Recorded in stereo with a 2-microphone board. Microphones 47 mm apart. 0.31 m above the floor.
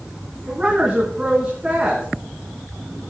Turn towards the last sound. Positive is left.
turn(degrees=-30)  # may be behind; listen again after turning